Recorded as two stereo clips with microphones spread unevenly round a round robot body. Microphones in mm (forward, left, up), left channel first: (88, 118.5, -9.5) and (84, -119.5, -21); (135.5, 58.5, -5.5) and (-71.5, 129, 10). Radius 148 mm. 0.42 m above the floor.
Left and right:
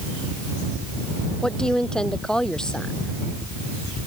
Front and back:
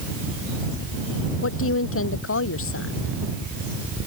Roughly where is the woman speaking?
Ahead.